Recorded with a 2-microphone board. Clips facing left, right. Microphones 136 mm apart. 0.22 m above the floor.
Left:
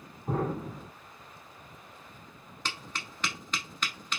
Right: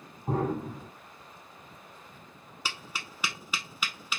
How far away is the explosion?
About 2.5 m.